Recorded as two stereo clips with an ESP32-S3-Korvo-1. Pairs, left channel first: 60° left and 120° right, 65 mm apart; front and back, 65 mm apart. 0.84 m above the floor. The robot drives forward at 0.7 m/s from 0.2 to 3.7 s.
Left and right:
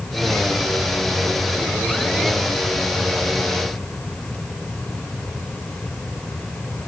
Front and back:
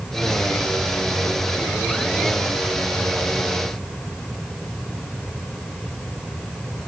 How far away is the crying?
I don't hear crying.